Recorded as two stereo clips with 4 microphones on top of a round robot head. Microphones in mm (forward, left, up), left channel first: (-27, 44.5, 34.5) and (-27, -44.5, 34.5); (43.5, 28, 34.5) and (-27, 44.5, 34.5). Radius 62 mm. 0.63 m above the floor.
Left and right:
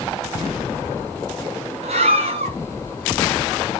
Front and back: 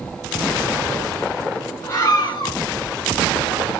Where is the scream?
80° right, 5.5 m.